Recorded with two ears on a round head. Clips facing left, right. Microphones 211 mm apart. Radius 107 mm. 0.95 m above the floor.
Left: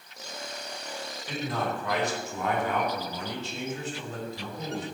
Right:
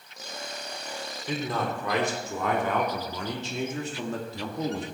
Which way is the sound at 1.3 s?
70° right (ahead or behind).